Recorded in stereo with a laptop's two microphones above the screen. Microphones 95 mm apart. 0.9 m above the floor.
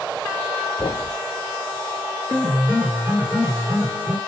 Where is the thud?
40° left (ahead or behind), 1.5 m.